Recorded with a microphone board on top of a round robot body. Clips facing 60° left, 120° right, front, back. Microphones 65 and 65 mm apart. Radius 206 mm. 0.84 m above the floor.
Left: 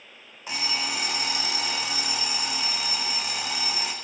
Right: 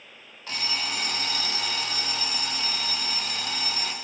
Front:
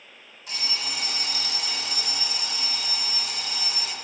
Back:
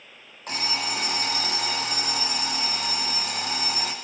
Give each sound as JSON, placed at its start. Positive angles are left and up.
{"t": 0.5, "sound": "an alarm clock", "azimuth_deg": 135, "distance_m": 1.2}